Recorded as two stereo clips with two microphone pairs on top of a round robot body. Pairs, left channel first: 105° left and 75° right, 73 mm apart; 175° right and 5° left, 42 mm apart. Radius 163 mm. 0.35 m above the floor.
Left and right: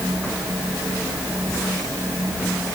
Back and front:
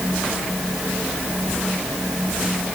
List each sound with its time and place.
Only background noise.